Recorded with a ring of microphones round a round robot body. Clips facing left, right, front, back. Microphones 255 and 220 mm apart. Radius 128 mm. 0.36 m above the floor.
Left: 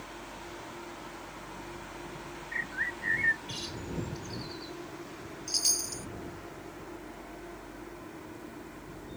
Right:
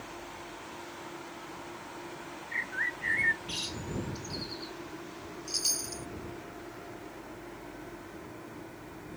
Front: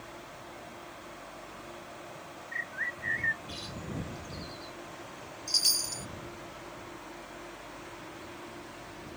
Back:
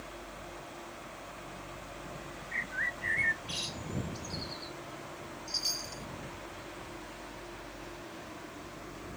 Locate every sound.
2.5 s a bird: 150° right
5.5 s a chime: 10° left